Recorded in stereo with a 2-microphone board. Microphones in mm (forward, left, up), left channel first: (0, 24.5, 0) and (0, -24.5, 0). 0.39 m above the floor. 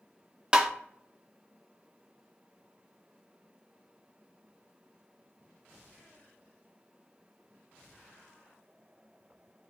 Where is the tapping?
20° right (ahead or behind), 0.5 m.